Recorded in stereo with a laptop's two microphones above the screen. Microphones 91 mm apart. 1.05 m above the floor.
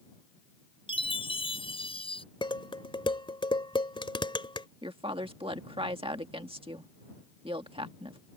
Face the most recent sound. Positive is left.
turn(degrees=-75)  # may be behind; listen again after turning